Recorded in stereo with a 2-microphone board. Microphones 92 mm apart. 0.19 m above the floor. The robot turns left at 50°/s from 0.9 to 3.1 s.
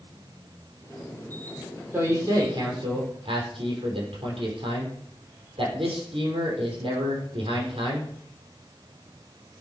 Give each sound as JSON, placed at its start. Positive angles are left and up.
{"t": 1.9, "sound": "a man speaking", "azimuth_deg": -30, "distance_m": 5.5}